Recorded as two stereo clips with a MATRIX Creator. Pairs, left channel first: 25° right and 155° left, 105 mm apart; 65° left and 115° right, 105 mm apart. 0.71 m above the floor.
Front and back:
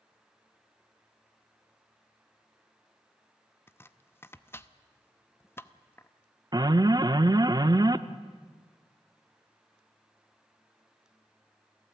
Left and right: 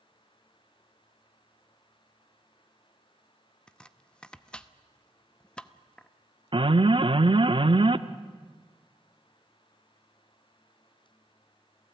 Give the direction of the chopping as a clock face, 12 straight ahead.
12 o'clock.